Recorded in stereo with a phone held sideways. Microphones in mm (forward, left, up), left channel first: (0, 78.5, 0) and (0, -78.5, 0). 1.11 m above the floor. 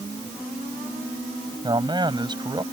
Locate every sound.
1.6 s a man speaking: 30° right (ahead or behind)